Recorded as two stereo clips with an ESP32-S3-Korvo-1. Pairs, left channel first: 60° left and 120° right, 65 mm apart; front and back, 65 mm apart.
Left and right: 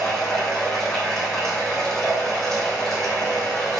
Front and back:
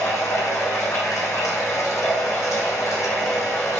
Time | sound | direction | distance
0.0 | running water | 25° right | 4 m